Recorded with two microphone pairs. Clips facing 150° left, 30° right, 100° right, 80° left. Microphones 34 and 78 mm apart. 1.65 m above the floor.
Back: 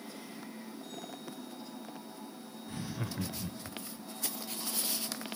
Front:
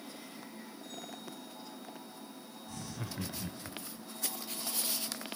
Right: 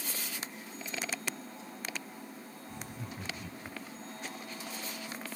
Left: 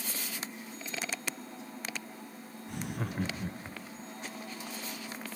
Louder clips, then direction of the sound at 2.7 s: Back 4 dB, left 8 dB; 90° left.